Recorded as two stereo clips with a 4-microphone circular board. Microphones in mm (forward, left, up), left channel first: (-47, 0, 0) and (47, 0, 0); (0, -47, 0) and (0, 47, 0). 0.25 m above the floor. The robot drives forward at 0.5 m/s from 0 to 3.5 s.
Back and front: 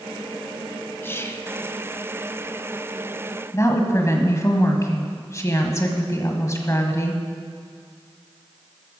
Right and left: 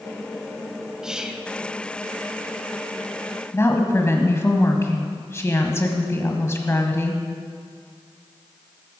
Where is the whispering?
165° left, 1.2 m; by 1.5 s 170° left, 1.3 m.